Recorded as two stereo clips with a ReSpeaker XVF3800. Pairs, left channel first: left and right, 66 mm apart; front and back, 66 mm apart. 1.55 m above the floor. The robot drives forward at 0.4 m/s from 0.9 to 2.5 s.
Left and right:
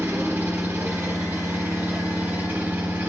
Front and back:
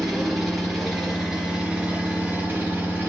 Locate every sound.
0.0 s an engine running: 90° right, 1.2 m; by 3.1 s 135° right, 1.3 m